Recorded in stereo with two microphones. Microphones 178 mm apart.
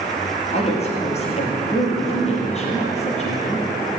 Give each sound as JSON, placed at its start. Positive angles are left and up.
{"t": 0.5, "sound": "a woman speaking", "side_deg": 35, "distance_m": 4.0}